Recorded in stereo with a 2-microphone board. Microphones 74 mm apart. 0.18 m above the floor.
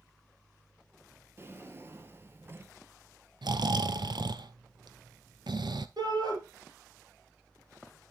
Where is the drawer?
30° right (ahead or behind), 1.2 m.